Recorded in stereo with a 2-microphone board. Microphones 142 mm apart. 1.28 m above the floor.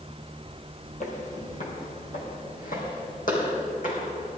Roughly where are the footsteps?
Left.